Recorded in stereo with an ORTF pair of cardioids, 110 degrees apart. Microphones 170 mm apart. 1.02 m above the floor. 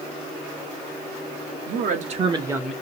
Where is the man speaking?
55° right, 1.4 m; by 2.7 s straight ahead, 0.8 m.